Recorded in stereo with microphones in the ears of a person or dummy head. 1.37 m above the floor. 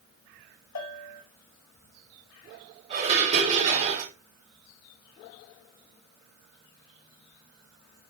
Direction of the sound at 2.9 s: 35° right (ahead or behind).